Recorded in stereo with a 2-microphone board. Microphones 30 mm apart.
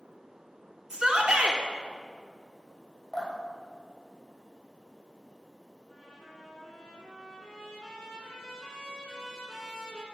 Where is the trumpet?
10° left (ahead or behind), 3 m.